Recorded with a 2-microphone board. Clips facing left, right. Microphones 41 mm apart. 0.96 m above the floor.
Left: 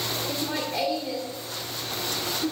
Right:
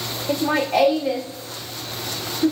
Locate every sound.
0.3 s laughter: 60° right (ahead or behind), 1.3 m